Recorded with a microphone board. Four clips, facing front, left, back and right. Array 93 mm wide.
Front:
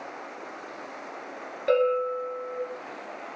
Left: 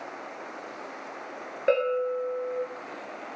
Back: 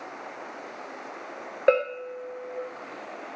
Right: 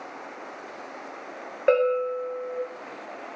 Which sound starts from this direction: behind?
A bell, at 1.7 s.